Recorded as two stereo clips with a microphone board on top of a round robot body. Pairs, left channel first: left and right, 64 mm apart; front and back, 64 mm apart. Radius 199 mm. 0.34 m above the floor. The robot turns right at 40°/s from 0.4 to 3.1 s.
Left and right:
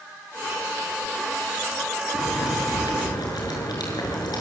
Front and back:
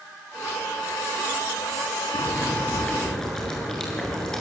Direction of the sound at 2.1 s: 45° left.